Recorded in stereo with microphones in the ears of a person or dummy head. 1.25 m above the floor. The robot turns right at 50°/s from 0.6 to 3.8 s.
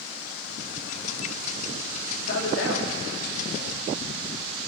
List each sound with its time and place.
2.2 s a man speaking: 60° left (ahead or behind), 2 m; by 3.8 s 40° left (ahead or behind), 2 m